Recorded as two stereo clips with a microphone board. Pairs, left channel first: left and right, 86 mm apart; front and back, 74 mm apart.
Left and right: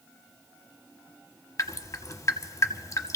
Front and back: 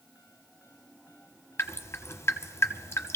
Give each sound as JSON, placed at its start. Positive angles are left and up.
{"t": 1.6, "sound": "dripping", "azimuth_deg": 45, "distance_m": 0.7}